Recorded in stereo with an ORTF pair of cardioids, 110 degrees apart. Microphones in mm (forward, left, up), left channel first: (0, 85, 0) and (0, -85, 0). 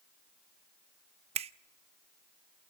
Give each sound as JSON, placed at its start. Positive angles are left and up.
{"t": 1.4, "sound": "a finger snap", "azimuth_deg": -40, "distance_m": 0.7}